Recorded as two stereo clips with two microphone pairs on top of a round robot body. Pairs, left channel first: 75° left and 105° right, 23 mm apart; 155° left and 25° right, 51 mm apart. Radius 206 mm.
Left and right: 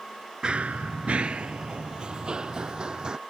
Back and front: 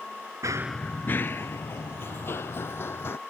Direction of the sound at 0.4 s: 15° right.